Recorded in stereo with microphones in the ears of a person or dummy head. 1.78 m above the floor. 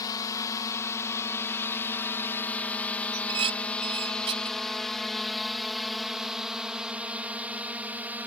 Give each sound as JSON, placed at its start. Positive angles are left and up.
{"t": 0.0, "sound": "a drone", "side_deg": 20}
{"t": 3.1, "sound": "dishes clattering", "side_deg": -35}